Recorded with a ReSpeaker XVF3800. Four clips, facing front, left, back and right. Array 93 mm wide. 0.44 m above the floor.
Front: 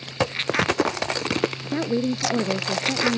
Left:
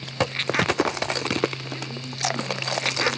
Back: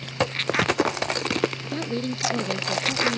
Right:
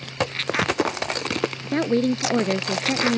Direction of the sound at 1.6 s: 75° right.